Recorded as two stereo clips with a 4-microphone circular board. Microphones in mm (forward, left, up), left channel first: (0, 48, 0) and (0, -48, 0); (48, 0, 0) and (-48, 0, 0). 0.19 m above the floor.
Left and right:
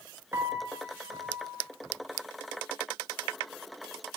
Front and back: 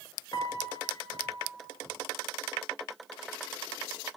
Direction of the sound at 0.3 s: 35° right.